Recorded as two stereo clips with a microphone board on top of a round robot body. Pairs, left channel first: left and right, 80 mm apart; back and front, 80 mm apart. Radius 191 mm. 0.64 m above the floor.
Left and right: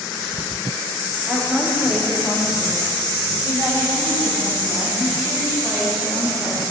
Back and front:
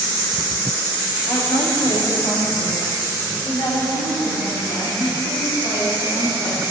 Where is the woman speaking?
165° right, 2.5 m; by 6.6 s 160° right, 7.5 m.